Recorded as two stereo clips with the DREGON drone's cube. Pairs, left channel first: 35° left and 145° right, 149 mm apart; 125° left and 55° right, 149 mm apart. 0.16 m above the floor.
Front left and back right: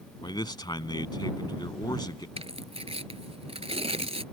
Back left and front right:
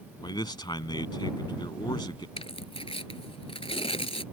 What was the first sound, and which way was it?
A man speaking, 80° left.